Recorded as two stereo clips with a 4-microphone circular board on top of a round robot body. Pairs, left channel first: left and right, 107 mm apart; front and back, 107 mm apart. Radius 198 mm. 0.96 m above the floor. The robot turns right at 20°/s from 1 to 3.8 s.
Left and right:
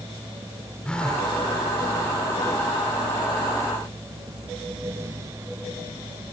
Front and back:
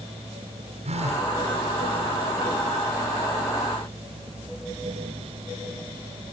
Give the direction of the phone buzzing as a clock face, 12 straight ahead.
6 o'clock.